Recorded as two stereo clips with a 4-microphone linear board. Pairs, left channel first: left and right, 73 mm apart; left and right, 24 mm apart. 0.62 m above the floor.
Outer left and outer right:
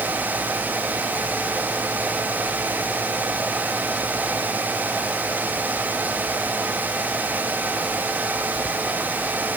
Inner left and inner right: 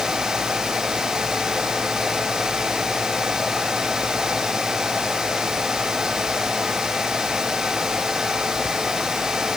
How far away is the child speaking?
No child speaking in this recording.